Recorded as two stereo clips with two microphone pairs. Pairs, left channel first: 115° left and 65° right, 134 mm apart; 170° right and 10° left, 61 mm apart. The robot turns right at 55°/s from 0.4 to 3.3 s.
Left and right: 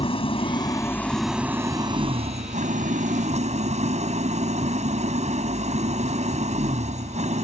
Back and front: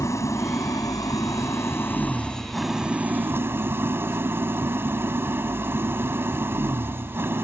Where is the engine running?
160° left; by 7.4 s 40° right.